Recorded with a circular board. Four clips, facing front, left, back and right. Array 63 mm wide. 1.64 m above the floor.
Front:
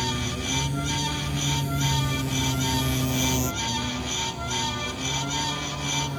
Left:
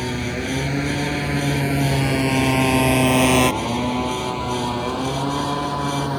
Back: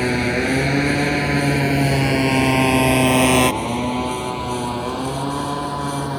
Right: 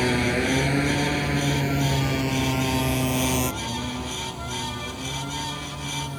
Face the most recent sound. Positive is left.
turn(degrees=130)